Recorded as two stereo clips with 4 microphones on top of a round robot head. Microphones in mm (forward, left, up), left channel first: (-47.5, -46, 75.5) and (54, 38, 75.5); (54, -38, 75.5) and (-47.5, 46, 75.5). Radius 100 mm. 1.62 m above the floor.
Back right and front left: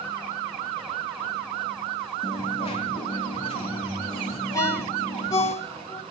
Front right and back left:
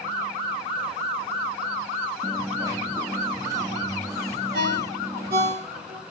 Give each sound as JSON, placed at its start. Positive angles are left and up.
{"t": 2.2, "sound": "a dropped coin", "azimuth_deg": -165, "distance_m": 1.6}
{"t": 4.5, "sound": "a ringtone", "azimuth_deg": 150, "distance_m": 2.5}